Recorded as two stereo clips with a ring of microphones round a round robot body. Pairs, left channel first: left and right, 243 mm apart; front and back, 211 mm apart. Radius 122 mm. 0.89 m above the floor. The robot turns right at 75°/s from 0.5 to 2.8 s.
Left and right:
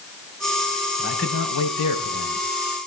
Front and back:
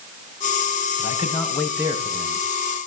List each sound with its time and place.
1.0 s a man speaking: 40° left, 5.5 m; by 2.4 s 145° left, 5.5 m